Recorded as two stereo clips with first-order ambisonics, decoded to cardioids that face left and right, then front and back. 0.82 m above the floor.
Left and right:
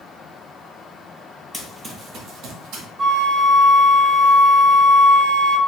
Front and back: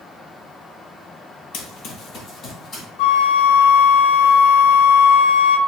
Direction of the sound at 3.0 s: 15° right.